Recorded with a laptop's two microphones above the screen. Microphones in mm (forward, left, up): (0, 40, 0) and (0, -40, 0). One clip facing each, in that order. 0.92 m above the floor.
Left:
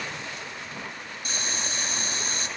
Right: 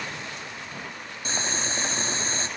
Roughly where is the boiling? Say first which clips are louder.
Right 4 dB; right.